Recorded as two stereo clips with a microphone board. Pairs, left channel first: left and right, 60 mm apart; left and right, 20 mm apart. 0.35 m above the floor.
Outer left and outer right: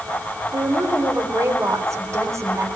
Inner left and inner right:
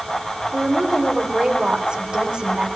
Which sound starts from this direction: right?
A woman speaking, at 0.5 s.